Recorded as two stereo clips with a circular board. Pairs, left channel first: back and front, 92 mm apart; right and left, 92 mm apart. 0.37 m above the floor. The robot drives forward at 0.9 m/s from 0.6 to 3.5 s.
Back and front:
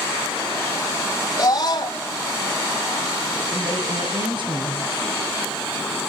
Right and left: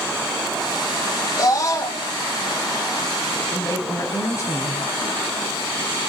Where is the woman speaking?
35° right, 7 m.